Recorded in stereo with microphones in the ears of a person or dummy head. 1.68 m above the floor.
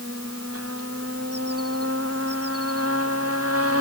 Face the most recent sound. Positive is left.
No sound to turn to.